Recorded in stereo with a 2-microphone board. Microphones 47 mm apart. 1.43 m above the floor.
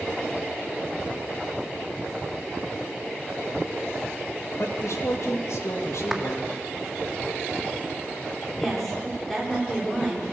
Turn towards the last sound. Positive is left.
turn(degrees=5)  # may be behind; listen again after turning